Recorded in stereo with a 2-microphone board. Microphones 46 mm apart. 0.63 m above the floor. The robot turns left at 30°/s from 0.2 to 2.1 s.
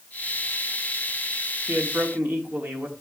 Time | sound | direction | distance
1.7 | a man speaking | 55° right (ahead or behind) | 1.4 m